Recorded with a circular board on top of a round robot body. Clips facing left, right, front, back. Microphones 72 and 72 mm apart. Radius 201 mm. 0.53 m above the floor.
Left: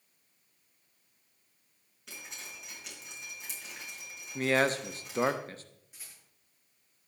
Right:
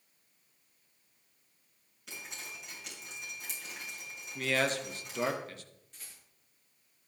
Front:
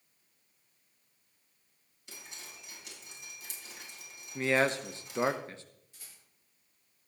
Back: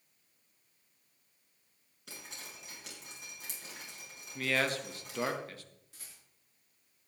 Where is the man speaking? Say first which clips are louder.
Left 4 dB, front 4 dB; 55° left, 1.2 m.